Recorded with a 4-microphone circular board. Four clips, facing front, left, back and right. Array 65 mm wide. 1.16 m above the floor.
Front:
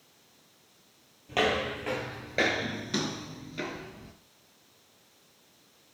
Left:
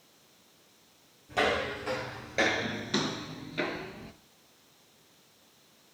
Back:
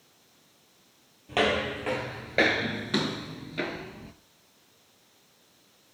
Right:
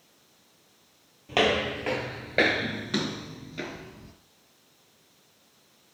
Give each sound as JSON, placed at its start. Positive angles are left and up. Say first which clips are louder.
{"t": 1.3, "sound": "footsteps", "louder": "right 4 dB, back 2 dB", "azimuth_deg": -100, "distance_m": 2.0}